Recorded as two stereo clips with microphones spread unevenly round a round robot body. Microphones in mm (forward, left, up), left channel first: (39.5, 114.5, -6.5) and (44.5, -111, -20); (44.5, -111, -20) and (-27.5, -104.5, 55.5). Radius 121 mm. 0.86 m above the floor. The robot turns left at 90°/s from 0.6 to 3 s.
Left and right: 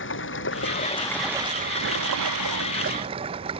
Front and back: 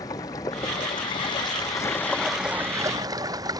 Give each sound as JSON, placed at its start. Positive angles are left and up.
{"t": 0.0, "sound": "running water", "azimuth_deg": 55}